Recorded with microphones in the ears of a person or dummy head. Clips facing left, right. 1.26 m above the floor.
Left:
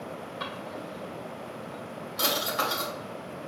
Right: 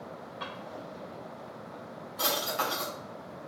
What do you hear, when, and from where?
0.4 s a drawer: 70° left (ahead or behind), 2 m